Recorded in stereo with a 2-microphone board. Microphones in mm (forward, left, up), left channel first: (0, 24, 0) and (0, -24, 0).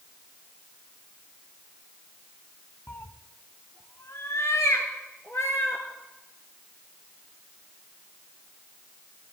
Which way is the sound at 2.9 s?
50° left (ahead or behind).